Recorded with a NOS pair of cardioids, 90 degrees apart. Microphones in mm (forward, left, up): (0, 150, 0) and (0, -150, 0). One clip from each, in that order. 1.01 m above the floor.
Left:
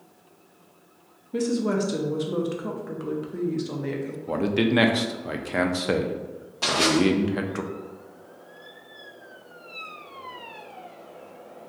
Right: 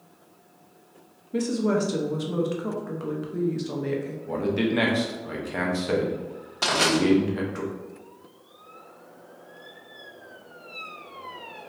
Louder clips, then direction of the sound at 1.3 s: Even; straight ahead.